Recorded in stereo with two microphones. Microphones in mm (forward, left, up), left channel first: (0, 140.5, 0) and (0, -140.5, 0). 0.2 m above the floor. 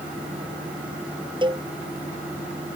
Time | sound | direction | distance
1.4 | a cowbell | 15° right (ahead or behind) | ?